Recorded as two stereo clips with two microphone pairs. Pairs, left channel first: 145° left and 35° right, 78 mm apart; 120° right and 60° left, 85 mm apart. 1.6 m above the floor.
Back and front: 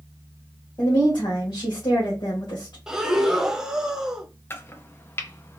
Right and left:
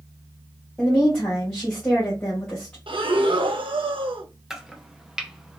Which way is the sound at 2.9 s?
50° left.